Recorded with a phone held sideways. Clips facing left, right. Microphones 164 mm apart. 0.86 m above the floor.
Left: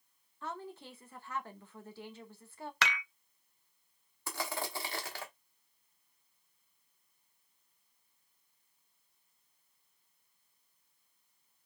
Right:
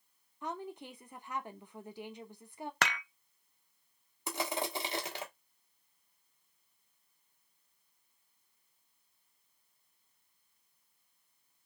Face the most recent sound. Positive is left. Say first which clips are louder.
# right 3 dB
turn(degrees=-20)  # may be behind; listen again after turning